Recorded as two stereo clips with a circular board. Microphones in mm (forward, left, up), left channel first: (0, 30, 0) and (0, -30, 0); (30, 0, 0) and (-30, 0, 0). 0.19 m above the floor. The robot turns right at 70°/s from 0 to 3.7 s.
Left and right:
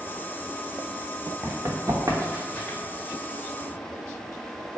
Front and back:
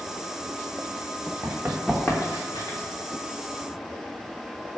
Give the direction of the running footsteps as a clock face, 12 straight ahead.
5 o'clock.